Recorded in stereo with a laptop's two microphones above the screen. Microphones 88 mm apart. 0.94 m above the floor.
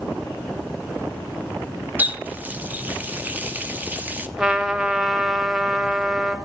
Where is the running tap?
20° right (ahead or behind), 0.8 m.